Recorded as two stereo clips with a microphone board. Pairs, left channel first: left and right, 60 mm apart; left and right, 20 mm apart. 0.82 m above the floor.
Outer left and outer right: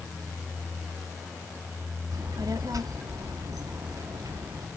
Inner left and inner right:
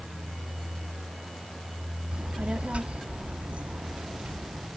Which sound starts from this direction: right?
A child speaking, at 2.1 s.